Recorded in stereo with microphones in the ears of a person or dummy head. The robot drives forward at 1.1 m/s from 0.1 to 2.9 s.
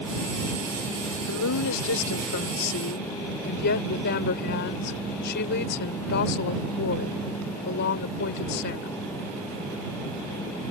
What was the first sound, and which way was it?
A woman speaking, 70° left (ahead or behind).